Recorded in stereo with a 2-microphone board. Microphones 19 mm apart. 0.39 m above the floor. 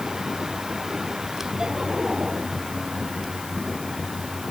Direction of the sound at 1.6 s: 35° right (ahead or behind).